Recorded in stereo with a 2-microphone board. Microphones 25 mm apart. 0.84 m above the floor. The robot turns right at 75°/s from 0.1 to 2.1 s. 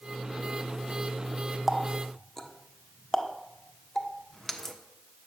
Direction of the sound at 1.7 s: 10° right (ahead or behind).